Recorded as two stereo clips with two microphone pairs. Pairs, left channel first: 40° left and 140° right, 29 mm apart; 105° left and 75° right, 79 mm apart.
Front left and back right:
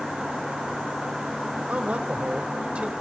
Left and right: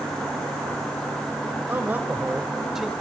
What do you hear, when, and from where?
1.7 s a man speaking: 130° right, 1.5 m; by 2.9 s 160° right, 1.3 m